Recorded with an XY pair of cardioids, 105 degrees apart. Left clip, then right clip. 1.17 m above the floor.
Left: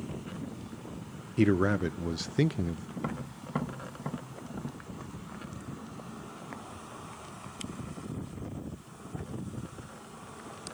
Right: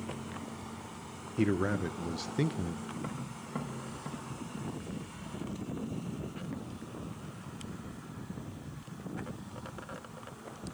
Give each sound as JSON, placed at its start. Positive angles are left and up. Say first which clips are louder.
{"t": 1.4, "sound": "a man speaking", "louder": "left 4 dB", "azimuth_deg": 30, "distance_m": 0.6}
{"t": 3.0, "sound": "tapping", "louder": "left 3 dB", "azimuth_deg": 40, "distance_m": 1.2}